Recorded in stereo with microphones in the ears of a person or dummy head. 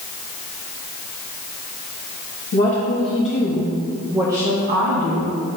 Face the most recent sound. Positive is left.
turn(degrees=-65)  # may be behind; listen again after turning